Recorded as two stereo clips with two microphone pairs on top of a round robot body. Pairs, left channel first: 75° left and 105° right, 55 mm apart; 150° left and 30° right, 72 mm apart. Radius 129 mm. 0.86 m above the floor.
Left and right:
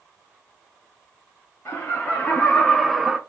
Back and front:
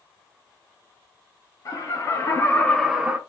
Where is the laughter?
130° left, 1.3 m; by 3.2 s 55° right, 0.8 m.